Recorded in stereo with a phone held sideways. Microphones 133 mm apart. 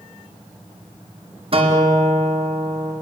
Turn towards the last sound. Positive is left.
turn(degrees=-45)  # may be behind; listen again after turning